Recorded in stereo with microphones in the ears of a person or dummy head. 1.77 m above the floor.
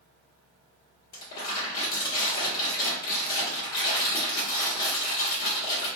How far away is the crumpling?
About 1.4 m.